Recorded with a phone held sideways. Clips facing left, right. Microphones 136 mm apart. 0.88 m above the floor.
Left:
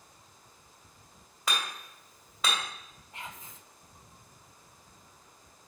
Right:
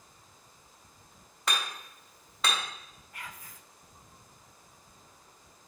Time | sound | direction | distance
1.5 | hammering | centre (ahead or behind) | 2.5 m
3.1 | whispering | 25° left (ahead or behind) | 0.5 m